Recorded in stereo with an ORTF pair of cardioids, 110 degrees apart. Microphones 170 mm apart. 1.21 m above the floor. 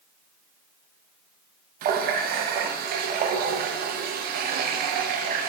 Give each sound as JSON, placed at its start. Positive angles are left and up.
{"t": 1.8, "sound": "a running tap", "azimuth_deg": -65, "distance_m": 0.6}